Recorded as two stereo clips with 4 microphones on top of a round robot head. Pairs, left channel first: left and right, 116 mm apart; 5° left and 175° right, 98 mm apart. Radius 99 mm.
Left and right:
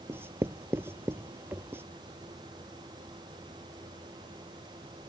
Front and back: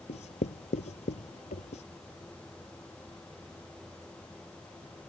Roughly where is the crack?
No crack in this recording.